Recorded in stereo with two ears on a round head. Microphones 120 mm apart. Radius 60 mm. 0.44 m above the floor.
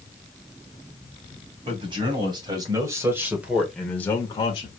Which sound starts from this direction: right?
A man speaking, at 1.6 s.